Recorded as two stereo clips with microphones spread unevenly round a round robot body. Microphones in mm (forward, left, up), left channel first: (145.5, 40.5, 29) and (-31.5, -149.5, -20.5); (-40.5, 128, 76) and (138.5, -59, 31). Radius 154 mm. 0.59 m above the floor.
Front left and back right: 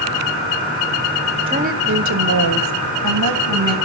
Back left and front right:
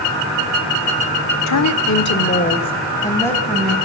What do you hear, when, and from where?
1.5 s a woman speaking: 160° left, 1.5 m; by 3.8 s 135° right, 3.5 m